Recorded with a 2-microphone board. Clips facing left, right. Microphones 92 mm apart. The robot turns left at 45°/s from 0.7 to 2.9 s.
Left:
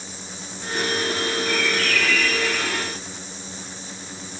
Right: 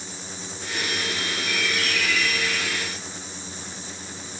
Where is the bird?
110° right, 3.5 m; by 2.9 s 175° right, 3.5 m.